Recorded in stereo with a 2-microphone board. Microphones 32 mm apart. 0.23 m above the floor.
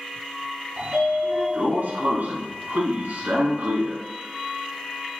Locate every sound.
0.8 s a sliding door: 65° right (ahead or behind), 0.8 m